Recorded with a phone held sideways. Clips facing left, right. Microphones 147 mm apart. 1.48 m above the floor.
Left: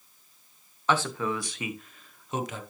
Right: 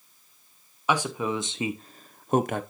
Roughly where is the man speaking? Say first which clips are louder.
Right 1 dB; centre.